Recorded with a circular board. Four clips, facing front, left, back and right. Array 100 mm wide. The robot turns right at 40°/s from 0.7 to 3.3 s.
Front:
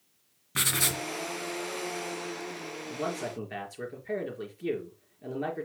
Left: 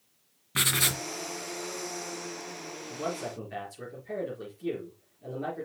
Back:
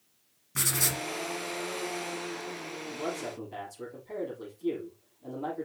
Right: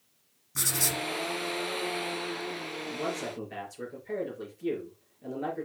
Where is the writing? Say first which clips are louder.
Left 2 dB, front 2 dB; 60° left, 1.2 m; by 1.0 s 75° left, 1.2 m.